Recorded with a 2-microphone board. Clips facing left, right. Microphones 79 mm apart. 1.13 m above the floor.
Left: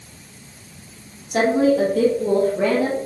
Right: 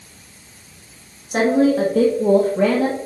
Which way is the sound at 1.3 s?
50° right (ahead or behind).